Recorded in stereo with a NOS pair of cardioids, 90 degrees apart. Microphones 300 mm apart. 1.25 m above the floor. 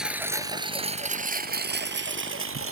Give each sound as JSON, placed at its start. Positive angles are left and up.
{"t": 0.0, "sound": "a lawn mower", "azimuth_deg": 0}